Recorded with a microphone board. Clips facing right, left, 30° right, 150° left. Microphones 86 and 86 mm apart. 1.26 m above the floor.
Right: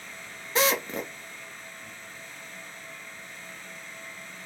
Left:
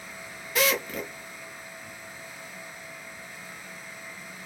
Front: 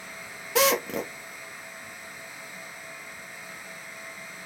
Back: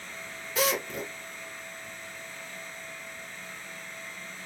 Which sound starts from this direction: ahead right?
A drill, at 0.6 s.